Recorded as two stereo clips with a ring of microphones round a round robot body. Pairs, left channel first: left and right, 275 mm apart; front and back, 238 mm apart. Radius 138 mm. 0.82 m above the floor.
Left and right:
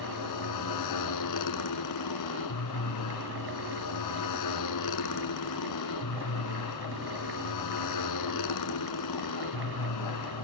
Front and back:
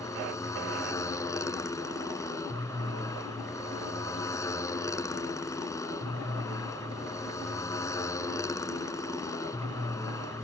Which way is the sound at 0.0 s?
75° left.